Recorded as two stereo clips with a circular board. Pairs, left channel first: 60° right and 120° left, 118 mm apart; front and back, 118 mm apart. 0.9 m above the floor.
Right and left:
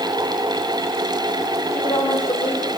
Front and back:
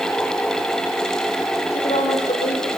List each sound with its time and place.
1.7 s a woman speaking: 25° right, 4.5 m